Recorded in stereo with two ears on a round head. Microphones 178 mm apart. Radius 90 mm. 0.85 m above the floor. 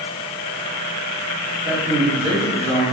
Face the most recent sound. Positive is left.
turn(degrees=-35)  # may be behind; listen again after turning